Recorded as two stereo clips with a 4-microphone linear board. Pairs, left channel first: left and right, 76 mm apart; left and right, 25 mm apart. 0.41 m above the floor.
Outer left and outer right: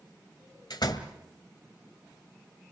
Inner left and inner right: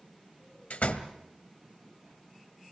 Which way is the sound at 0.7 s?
65° left (ahead or behind).